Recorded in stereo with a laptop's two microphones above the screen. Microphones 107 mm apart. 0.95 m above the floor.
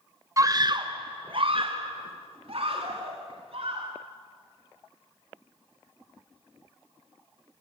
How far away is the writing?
I don't hear writing.